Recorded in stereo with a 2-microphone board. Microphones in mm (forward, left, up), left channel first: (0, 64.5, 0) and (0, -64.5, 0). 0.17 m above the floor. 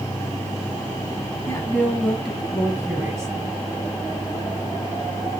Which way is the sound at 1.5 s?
20° left (ahead or behind).